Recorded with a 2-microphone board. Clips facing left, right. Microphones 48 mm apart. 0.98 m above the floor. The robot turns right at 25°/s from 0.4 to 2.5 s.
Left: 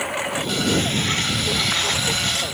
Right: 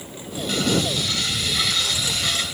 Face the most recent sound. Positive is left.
turn(degrees=155)